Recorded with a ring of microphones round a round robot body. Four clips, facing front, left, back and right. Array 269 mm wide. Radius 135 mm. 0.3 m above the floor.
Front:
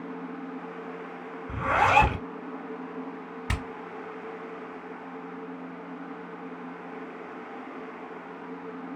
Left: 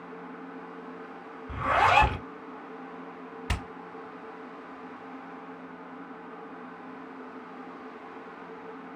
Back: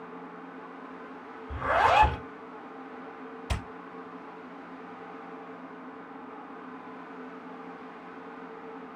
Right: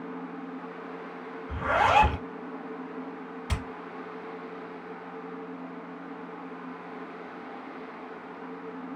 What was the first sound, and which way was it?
A zipper, 35° left.